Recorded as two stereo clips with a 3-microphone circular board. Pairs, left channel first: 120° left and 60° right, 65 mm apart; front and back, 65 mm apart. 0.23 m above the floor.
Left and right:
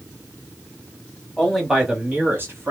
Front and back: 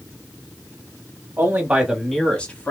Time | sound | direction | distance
1.4 | a man speaking | 160° right | 1.3 m